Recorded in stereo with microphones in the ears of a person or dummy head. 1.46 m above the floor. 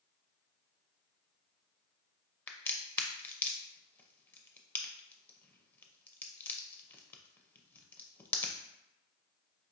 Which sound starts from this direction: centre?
A crack, at 2.5 s.